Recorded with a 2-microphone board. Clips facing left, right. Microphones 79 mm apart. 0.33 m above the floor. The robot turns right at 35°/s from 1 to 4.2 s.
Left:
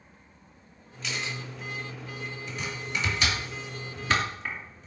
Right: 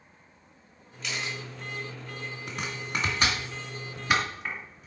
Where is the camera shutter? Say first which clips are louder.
Even; centre (ahead or behind), 3.5 m; by 1.4 s 15° right (ahead or behind), 3.5 m.